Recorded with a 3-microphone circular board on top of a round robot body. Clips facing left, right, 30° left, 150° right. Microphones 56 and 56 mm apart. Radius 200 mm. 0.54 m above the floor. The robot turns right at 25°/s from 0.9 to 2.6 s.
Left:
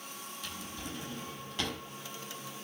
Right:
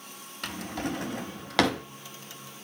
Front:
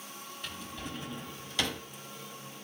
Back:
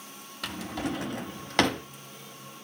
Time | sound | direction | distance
0.4 | a drawer | 125° right | 0.6 m